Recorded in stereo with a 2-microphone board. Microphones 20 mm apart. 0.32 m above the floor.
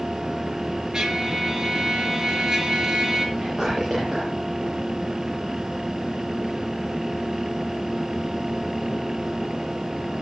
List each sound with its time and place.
0.9 s a trumpet: 35° right (ahead or behind), 4.5 m
3.4 s whispering: 30° right (ahead or behind), 6.5 m